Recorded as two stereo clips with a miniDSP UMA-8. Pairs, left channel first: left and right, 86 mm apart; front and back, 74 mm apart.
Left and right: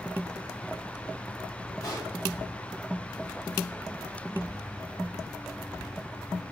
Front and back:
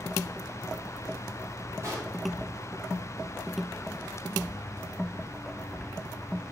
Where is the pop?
135° left, 3 m.